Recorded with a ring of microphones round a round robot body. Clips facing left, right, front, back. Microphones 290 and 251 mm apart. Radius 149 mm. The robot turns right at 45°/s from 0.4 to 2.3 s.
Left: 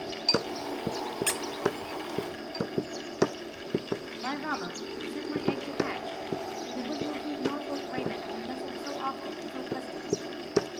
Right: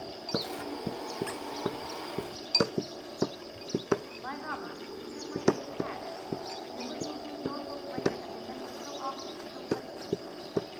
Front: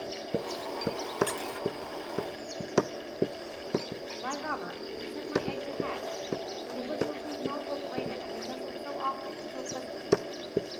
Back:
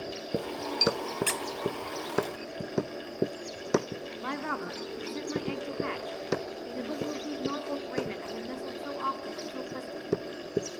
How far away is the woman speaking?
About 2.5 m.